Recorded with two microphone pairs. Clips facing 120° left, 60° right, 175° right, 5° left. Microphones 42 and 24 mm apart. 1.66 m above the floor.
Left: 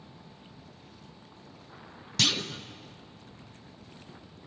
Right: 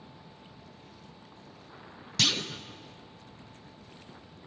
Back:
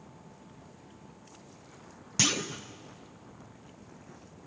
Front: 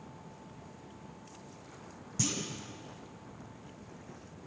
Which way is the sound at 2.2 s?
145° right.